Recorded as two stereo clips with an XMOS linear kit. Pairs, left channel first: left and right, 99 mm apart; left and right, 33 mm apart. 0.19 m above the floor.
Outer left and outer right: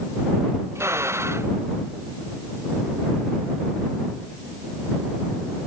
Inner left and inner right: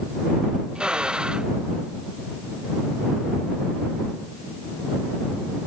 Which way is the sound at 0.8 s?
25° right (ahead or behind).